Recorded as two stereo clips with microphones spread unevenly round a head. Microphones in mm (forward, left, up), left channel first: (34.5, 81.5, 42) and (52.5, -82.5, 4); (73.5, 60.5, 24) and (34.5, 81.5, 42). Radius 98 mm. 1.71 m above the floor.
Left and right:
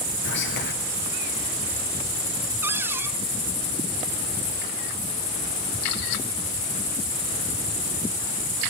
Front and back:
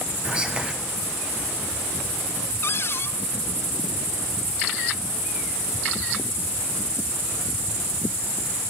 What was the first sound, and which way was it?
Whispering, 85° left.